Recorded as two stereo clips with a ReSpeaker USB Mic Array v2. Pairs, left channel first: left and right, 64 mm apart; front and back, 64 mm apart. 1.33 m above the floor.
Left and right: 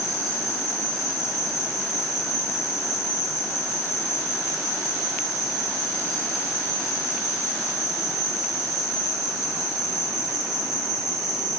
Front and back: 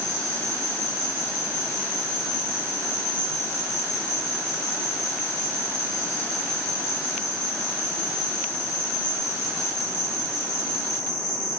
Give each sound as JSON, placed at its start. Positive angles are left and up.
{"t": 0.0, "sound": "an insect", "azimuth_deg": -5, "distance_m": 2.5}